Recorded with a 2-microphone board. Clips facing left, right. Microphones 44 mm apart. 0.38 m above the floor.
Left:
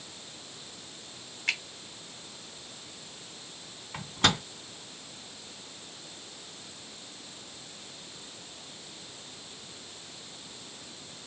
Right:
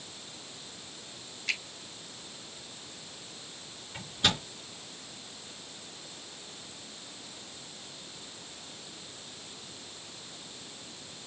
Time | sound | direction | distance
1.5 | a finger snap | 60° left (ahead or behind) | 2.5 m
3.9 | a microwave | 70° left (ahead or behind) | 2.5 m